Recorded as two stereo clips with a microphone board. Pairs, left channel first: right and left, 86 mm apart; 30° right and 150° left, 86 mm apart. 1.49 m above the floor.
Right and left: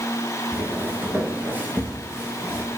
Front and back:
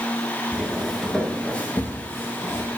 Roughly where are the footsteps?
Left.